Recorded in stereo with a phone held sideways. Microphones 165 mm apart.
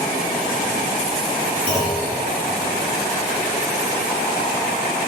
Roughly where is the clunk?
Centre.